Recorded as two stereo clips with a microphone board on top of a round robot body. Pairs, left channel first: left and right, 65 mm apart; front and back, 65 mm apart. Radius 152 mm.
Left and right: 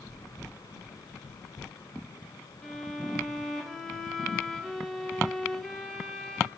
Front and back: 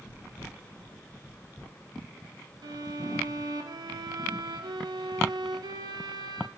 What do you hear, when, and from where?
2.6 s a violin: 175° left, 0.6 m